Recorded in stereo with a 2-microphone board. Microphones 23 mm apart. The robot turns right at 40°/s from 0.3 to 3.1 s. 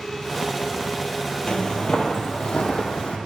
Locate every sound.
1.5 s footsteps: 40° left (ahead or behind), 0.7 m; by 3.2 s 60° left (ahead or behind), 1.4 m